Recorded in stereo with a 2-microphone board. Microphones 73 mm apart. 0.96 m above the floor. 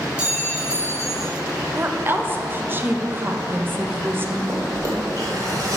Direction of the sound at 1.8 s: 30° right (ahead or behind).